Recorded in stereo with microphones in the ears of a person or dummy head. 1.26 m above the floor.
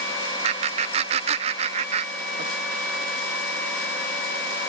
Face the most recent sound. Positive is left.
turn(degrees=-35)  # may be behind; listen again after turning